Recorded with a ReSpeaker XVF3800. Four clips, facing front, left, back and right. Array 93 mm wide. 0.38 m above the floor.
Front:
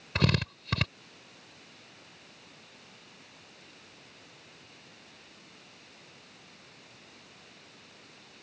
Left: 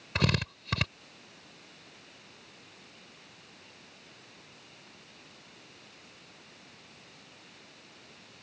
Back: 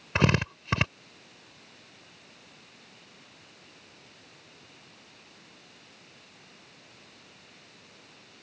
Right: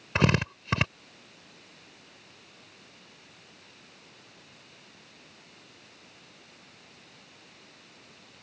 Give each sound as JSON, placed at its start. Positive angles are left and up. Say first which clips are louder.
{"t": 0.1, "sound": "a drill", "louder": "right 5 dB, back 4 dB", "azimuth_deg": -135}